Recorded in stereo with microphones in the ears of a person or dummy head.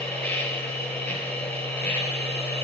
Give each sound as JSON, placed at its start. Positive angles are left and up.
{"t": 0.0, "sound": "a machine running", "side_deg": 10, "distance_m": 3.5}